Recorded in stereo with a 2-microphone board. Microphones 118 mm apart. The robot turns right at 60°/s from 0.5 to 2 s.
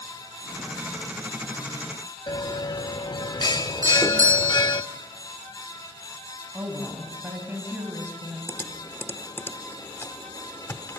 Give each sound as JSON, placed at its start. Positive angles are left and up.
{"t": 2.3, "sound": "a bell", "side_deg": 35, "distance_m": 0.5}
{"t": 3.8, "sound": "a doorbell", "side_deg": -25, "distance_m": 1.4}
{"t": 6.5, "sound": "a woman speaking", "side_deg": -20, "distance_m": 3.5}
{"t": 8.5, "sound": "typing on a keyboard", "side_deg": 20, "distance_m": 1.0}